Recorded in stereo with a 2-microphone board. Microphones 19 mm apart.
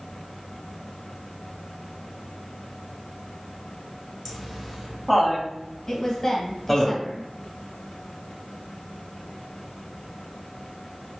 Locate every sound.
4.2 s laughter: 15° right (ahead or behind), 1.2 m
5.9 s a woman speaking: 25° left (ahead or behind), 1.0 m